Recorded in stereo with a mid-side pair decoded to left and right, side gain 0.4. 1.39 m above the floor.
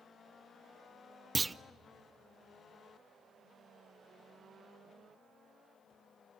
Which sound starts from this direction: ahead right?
A clunk, at 1.4 s.